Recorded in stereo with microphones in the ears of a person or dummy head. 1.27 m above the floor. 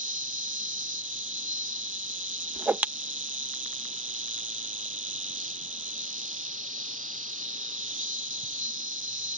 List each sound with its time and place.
0.0 s an insect: 35° right (ahead or behind)
2.5 s a whoosh: 5° right (ahead or behind)